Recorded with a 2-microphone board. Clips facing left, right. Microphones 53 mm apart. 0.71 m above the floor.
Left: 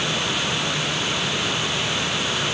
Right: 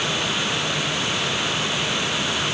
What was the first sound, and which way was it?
Only background noise.